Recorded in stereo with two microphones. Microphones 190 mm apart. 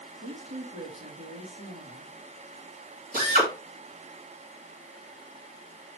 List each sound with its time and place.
0.2 s a woman speaking: 85° right, 2.5 m
3.1 s a drill: 45° right (ahead or behind), 3 m